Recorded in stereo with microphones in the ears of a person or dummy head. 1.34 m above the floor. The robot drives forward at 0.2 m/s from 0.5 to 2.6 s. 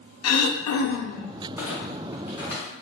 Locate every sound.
0.2 s throat clearing: 80° left, 0.5 m; by 1.3 s 70° left (ahead or behind), 0.6 m
1.6 s a clunk: 15° right (ahead or behind), 0.7 m; by 2.7 s 10° right (ahead or behind), 0.9 m